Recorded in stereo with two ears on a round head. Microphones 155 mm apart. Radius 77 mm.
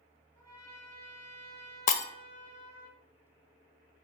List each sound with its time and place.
0.3 s a trumpet: 20° left (ahead or behind), 4 m
1.9 s breaking glass: 45° left (ahead or behind), 0.5 m